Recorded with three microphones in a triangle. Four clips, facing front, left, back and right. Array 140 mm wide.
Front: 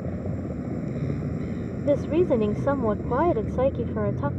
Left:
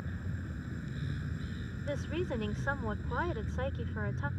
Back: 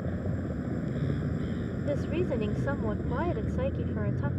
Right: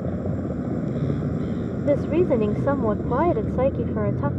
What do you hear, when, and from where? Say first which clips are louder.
0.0 s a vehicle: right 16 dB, front 3 dB; 80° right
1.8 s a woman speaking: right 16 dB, front 10 dB; 50° right